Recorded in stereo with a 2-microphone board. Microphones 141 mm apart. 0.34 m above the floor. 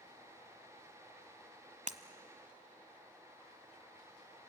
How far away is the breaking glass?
About 1.0 m.